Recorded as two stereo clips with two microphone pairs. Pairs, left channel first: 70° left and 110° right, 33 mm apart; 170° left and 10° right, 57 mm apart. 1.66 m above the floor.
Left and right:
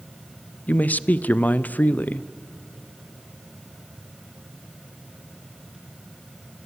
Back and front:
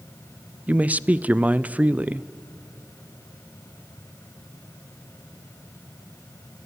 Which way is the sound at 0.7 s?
50° left.